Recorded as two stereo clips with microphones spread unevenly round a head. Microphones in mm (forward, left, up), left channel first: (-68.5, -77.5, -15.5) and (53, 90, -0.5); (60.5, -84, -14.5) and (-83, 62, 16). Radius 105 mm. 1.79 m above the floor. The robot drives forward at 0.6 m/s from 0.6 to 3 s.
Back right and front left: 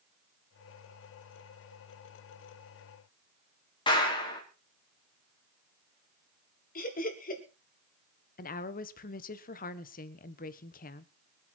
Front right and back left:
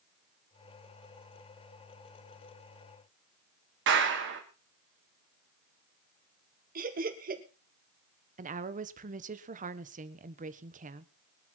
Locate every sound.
3.9 s a clap: 165° left, 4 m
6.8 s laughter: 175° right, 3.5 m
8.4 s a woman speaking: 175° right, 1.3 m